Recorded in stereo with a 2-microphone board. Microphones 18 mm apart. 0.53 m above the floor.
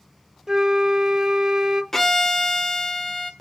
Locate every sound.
0.5 s a flute: 30° right (ahead or behind), 0.6 m
1.9 s a violin: 20° left (ahead or behind), 0.8 m